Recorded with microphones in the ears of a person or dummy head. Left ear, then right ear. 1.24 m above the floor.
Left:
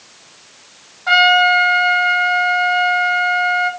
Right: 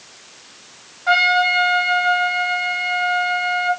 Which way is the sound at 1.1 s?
15° left (ahead or behind).